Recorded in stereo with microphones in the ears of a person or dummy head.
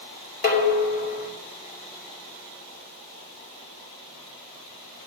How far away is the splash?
I don't hear a splash.